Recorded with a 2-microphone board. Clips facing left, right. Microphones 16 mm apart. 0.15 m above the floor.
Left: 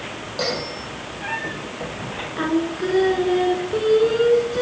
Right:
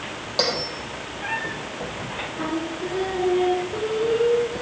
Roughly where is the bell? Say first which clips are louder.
Right 2 dB; right.